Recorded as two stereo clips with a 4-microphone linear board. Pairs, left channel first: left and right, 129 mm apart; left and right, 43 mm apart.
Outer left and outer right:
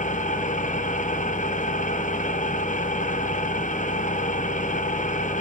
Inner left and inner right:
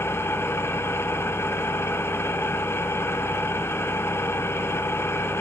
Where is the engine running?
80° left, 0.7 m.